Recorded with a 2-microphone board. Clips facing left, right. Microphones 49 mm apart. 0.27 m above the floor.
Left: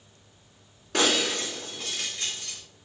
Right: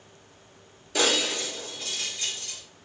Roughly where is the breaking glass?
Left.